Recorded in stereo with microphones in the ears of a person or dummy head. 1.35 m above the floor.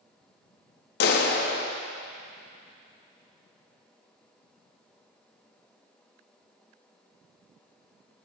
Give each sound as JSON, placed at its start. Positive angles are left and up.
{"t": 1.0, "sound": "a clap", "side_deg": 65, "distance_m": 1.4}